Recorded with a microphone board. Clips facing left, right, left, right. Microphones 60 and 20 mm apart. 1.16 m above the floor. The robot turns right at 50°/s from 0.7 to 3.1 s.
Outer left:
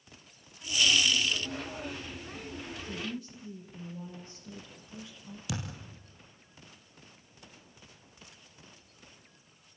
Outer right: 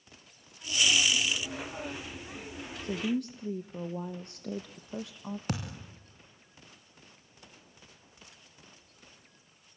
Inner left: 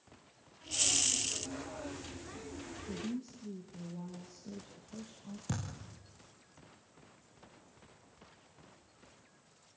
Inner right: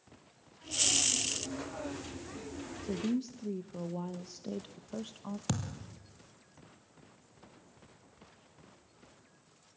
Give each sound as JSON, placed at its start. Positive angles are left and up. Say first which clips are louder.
{"t": 2.8, "sound": "a woman speaking", "louder": "outer right 10 dB, inner right 7 dB", "side_deg": -55, "distance_m": 1.1}
{"t": 5.5, "sound": "a thud", "louder": "outer left 1 dB, inner right 3 dB", "side_deg": -50, "distance_m": 3.5}